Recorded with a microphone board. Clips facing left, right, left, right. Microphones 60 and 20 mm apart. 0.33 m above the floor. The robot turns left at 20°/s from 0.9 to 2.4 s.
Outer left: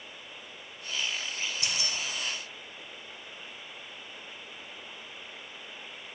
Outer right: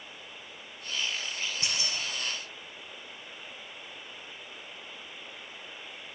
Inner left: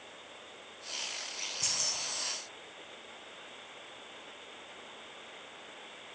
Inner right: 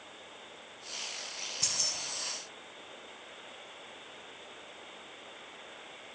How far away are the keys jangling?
About 1.0 m.